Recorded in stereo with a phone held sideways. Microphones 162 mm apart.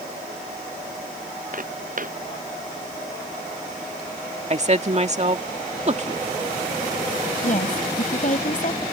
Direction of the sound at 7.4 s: 50° left (ahead or behind).